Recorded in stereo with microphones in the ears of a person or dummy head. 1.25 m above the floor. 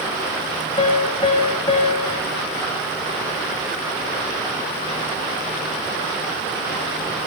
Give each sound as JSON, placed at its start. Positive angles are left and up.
{"t": 0.8, "sound": "a piano", "side_deg": 20, "distance_m": 1.1}